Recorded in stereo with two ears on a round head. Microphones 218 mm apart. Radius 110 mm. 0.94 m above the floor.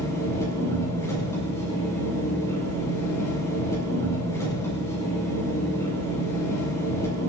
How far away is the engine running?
About 7.5 m.